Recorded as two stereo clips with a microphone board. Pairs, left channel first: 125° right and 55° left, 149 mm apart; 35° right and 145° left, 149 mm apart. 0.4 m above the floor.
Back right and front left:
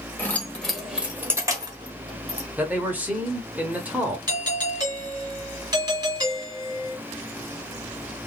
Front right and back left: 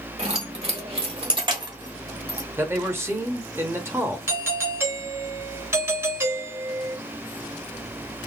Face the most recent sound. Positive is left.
turn(degrees=90)